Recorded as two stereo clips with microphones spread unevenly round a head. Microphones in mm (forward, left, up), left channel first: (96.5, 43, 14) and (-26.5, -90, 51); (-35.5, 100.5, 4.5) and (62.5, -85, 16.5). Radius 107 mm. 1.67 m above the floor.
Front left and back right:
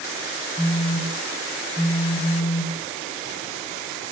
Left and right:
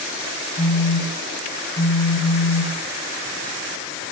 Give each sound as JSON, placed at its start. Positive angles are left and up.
{"t": 0.6, "sound": "a phone buzzing", "azimuth_deg": -175, "distance_m": 1.8}